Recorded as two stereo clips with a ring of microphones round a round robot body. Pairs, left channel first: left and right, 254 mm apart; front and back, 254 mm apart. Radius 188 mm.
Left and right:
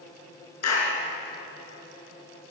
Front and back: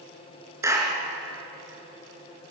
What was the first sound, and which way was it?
A clap, 100° left.